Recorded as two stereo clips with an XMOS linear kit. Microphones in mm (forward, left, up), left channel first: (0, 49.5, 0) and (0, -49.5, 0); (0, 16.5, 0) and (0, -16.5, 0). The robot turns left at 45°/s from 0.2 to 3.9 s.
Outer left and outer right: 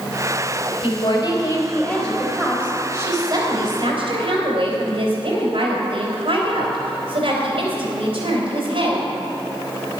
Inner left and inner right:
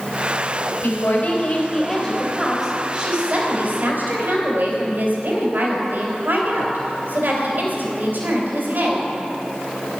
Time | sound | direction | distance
0.8 | a woman speaking | 65° left | 4 m